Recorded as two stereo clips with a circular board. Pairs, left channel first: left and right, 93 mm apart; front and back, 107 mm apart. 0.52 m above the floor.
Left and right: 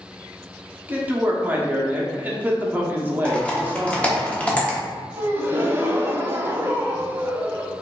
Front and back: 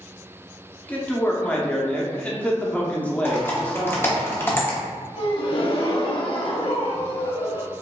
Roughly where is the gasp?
Ahead right.